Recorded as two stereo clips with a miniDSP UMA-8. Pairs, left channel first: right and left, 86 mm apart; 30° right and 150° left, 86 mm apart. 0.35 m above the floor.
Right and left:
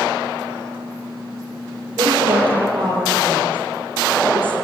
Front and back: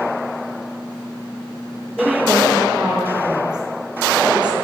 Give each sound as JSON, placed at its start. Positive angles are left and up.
{"t": 2.0, "sound": "a woman speaking", "azimuth_deg": 65, "distance_m": 10.0}